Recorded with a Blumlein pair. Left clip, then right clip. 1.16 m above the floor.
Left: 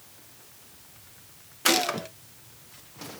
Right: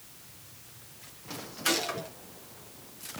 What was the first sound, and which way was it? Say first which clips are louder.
A gunshot: left 6 dB; 25° left.